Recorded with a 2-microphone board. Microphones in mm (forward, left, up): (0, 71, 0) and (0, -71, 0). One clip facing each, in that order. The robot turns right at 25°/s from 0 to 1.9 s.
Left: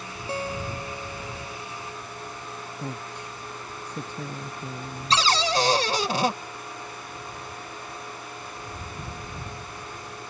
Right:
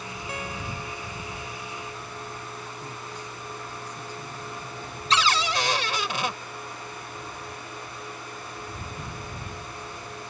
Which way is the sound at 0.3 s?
30° left.